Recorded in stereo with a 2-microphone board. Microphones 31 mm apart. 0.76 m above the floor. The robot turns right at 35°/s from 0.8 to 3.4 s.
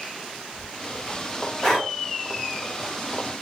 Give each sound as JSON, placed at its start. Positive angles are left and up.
{"t": 1.6, "sound": "breathing", "side_deg": 20, "distance_m": 1.8}